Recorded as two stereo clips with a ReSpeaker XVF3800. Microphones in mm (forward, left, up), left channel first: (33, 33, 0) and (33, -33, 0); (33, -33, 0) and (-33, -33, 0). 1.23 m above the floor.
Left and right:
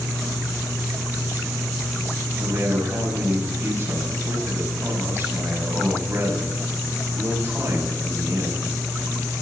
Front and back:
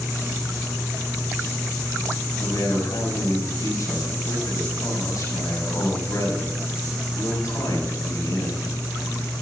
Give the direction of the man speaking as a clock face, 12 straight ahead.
1 o'clock.